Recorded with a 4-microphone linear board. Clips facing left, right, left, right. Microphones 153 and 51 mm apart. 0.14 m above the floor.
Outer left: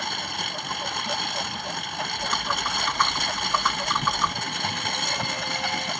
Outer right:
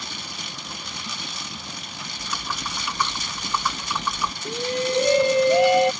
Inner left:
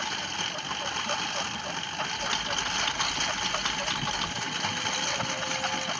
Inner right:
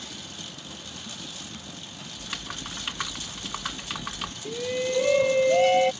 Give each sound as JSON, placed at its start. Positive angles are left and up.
{"t": 0.0, "sound": "a lawn mower", "side_deg": 60}
{"t": 2.2, "sound": "typing on a keyboard", "side_deg": -5}
{"t": 4.5, "sound": "a shout", "side_deg": -65}